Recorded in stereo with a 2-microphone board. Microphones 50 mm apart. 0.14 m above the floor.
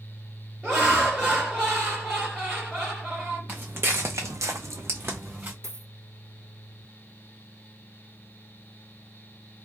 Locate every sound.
0.6 s laughter: 10° right (ahead or behind), 1.7 m
3.5 s footsteps: 35° right (ahead or behind), 0.9 m; by 5.5 s 30° right (ahead or behind), 1.0 m
5.6 s a dropped coin: 60° right (ahead or behind), 1.1 m